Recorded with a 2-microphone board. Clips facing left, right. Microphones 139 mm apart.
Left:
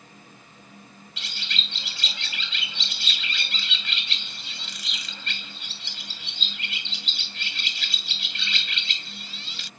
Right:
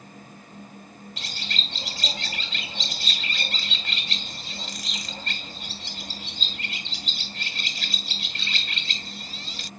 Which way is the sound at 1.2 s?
40° right (ahead or behind).